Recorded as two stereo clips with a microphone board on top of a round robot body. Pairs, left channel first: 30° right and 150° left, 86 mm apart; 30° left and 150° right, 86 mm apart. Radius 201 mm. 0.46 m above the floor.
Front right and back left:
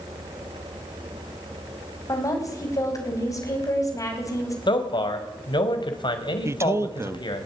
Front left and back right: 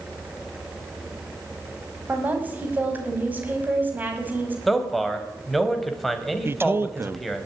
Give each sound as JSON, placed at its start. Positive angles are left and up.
{"t": 2.1, "sound": "a woman speaking", "azimuth_deg": -80, "distance_m": 5.5}
{"t": 4.7, "sound": "a man speaking", "azimuth_deg": -60, "distance_m": 3.0}
{"t": 6.5, "sound": "a man speaking", "azimuth_deg": 175, "distance_m": 1.0}